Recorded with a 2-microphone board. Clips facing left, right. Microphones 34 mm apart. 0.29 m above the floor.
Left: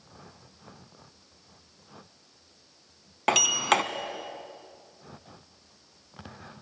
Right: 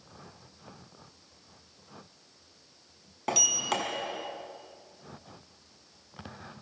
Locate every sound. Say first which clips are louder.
3.3 s a sliding door: left 7 dB; 70° left (ahead or behind), 1.2 m